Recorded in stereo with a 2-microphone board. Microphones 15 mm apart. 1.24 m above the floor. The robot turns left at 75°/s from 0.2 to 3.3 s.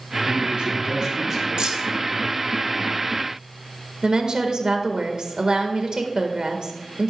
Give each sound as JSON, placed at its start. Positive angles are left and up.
{"t": 0.2, "sound": "a man speaking", "azimuth_deg": -85, "distance_m": 3.5}
{"t": 1.6, "sound": "keys jangling", "side_deg": -70, "distance_m": 1.1}
{"t": 4.0, "sound": "a woman speaking", "side_deg": -65, "distance_m": 1.5}